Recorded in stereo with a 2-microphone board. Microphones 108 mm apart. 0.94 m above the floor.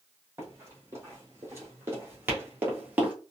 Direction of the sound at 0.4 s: 25° right (ahead or behind).